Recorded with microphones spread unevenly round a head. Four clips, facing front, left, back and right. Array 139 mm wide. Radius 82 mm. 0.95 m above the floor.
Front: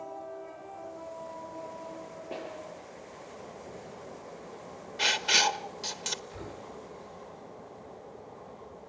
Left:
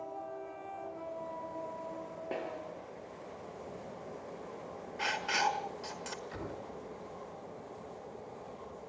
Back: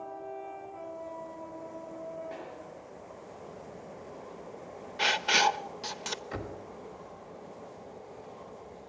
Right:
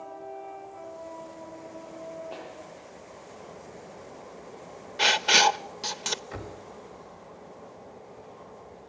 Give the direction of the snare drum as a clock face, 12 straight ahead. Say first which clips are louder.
Left 2 dB, front 3 dB; 9 o'clock.